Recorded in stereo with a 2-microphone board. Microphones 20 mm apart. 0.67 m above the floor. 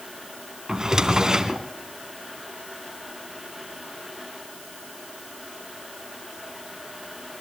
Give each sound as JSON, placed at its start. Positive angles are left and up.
{"t": 0.7, "sound": "a drawer", "side_deg": -30, "distance_m": 2.0}